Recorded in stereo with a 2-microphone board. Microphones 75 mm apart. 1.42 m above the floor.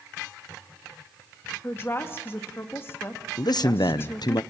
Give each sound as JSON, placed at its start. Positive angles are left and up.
{"t": 1.6, "sound": "a woman speaking", "side_deg": 30, "distance_m": 2.0}
{"t": 3.4, "sound": "a man speaking", "side_deg": 65, "distance_m": 0.8}